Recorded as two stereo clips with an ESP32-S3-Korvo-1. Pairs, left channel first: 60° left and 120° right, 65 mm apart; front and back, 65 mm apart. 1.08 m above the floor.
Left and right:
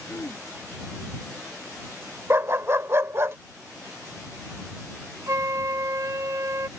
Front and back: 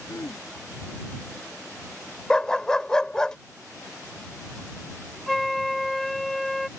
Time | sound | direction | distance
0.1 | throat clearing | 15° left | ?
2.3 | a dog barking | 80° right | ?
5.3 | a flute | 85° right | ?